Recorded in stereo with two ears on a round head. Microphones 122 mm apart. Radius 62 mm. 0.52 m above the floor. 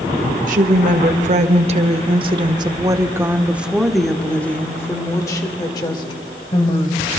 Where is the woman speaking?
65° right (ahead or behind), 1.8 m; by 7.2 s 45° left (ahead or behind), 2.5 m.